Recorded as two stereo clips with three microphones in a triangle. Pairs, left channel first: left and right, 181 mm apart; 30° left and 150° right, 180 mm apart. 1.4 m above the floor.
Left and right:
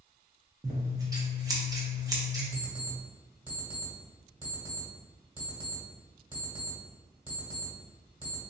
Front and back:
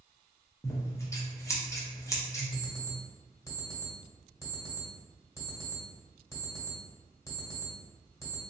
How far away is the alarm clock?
About 1.5 m.